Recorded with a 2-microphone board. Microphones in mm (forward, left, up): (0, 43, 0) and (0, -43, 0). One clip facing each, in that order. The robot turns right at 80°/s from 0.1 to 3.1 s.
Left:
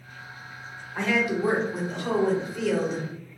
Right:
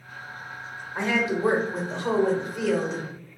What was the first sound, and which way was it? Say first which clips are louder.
A woman speaking: even; 150° right.